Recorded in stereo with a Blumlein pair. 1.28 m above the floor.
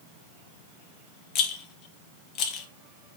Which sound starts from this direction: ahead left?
A rattle, at 1.4 s.